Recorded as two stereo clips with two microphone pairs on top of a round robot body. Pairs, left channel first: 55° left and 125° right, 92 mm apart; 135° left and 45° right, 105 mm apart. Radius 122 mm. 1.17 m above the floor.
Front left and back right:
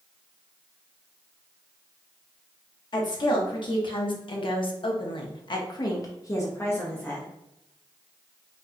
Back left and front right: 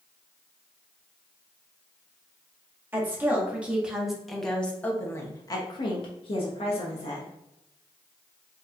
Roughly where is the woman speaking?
Ahead left.